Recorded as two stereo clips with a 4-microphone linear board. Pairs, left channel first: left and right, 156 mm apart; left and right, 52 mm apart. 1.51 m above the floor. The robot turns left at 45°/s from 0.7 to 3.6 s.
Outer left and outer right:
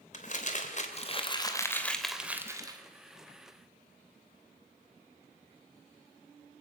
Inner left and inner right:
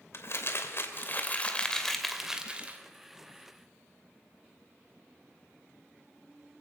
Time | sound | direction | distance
0.1 | crumpling | 60° left | 2.5 m